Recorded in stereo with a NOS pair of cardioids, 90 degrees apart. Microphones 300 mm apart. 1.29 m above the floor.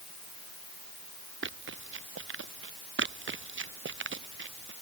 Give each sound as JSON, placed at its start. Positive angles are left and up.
{"t": 1.4, "sound": "running footsteps", "azimuth_deg": -40}
{"t": 3.0, "sound": "running footsteps", "azimuth_deg": -40}